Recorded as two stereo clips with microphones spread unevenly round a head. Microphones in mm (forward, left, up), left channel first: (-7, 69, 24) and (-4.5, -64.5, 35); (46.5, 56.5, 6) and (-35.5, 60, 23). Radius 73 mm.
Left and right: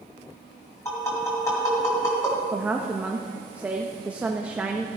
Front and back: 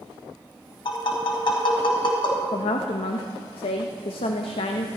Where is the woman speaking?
10° right, 0.6 m.